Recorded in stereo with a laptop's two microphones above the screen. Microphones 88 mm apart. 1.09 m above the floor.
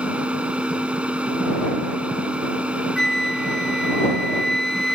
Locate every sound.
0.0 s a machine running: 15° right (ahead or behind)
3.0 s a flute: 5° left (ahead or behind)